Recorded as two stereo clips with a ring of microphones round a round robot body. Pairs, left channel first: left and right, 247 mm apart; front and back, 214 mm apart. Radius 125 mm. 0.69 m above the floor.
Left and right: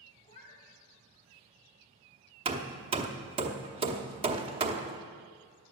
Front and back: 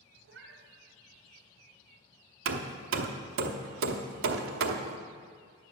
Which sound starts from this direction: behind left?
A cat meowing, at 0.2 s.